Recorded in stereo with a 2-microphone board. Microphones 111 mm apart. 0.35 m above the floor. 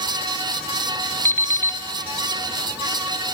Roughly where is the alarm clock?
Left.